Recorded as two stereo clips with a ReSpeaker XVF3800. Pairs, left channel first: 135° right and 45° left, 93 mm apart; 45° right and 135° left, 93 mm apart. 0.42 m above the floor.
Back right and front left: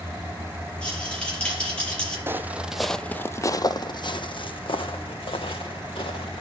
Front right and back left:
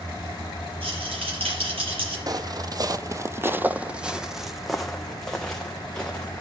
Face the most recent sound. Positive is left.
turn(degrees=-125)